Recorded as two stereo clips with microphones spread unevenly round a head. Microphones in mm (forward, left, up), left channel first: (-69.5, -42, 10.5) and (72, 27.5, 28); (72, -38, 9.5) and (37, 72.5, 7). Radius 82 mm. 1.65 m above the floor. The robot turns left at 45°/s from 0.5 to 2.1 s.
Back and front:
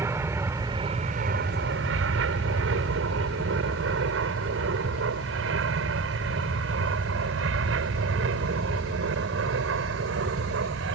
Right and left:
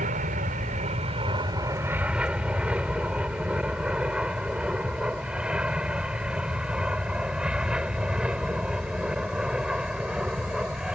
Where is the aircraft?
100° left; by 11.0 s 25° left.